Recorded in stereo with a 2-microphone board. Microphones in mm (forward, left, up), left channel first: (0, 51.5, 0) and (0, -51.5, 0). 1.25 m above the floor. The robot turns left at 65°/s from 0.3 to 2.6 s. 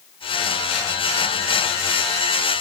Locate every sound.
Only background noise.